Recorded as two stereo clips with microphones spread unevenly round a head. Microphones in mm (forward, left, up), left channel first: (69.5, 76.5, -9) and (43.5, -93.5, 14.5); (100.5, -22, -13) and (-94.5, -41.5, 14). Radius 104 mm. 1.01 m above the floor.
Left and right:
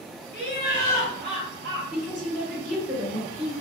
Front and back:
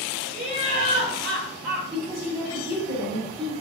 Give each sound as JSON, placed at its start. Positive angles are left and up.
{"t": 0.3, "sound": "laughter", "azimuth_deg": 110, "distance_m": 1.1}
{"t": 1.9, "sound": "a woman speaking", "azimuth_deg": 175, "distance_m": 1.7}